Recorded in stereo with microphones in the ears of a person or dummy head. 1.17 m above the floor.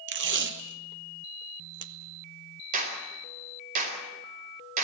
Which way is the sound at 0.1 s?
60° right (ahead or behind).